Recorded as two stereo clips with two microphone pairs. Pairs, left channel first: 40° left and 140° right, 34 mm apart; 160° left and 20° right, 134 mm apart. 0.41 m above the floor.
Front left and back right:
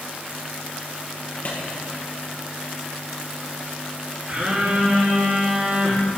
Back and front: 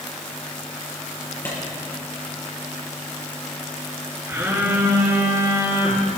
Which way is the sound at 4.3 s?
95° right.